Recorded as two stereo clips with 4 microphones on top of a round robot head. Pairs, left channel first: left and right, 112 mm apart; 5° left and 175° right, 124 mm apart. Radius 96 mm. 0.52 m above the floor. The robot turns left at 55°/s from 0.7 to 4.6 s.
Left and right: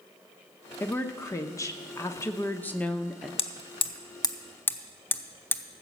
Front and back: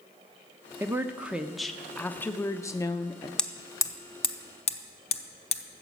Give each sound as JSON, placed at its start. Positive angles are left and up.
{"t": 0.8, "sound": "a woman speaking", "azimuth_deg": 140, "distance_m": 0.8}
{"t": 3.4, "sound": "hammering", "azimuth_deg": 90, "distance_m": 1.0}